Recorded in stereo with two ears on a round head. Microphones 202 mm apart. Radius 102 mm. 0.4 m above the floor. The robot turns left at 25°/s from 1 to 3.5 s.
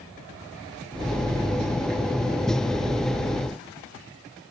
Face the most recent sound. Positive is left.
No sound to turn to.